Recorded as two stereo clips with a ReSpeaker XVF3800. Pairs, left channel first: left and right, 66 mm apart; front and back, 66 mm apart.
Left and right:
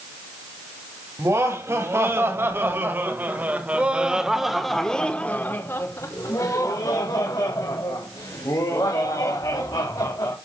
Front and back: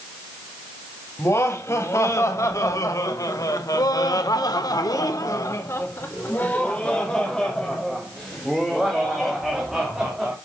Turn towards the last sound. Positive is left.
turn(degrees=95)